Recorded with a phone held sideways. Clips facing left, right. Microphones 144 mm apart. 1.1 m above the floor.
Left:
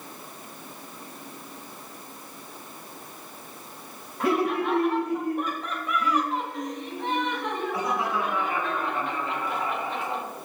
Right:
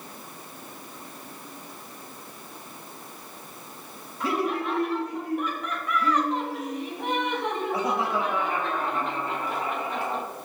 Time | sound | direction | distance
4.2 | laughter | 70° left (ahead or behind) | 2.0 m